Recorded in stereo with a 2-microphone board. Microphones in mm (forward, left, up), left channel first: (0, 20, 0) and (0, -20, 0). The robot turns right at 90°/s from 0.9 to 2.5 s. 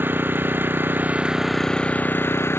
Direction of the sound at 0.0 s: 55° right.